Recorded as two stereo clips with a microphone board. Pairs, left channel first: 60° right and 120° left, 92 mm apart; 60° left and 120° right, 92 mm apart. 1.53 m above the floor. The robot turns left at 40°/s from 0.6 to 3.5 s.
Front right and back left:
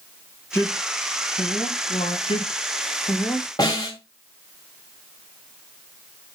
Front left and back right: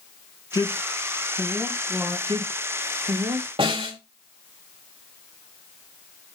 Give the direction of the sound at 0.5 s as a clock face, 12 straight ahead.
12 o'clock.